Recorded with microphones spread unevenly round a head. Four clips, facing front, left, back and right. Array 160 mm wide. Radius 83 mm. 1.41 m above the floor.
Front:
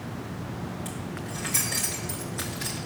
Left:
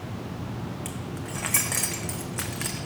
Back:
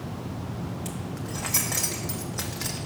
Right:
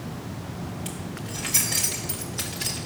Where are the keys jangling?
150° left, 0.5 m.